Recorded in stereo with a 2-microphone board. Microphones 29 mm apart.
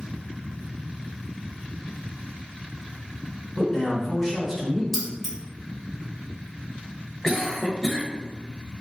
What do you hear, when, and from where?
3.6 s a man speaking: 20° left (ahead or behind), 1.2 m; by 4.8 s centre (ahead or behind), 1.1 m
4.9 s keys jangling: centre (ahead or behind), 1.5 m
7.2 s a cough: 15° left (ahead or behind), 1.1 m